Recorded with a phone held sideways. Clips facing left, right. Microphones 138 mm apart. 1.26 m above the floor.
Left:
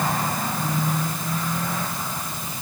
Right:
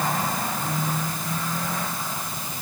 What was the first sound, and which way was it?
Only background noise.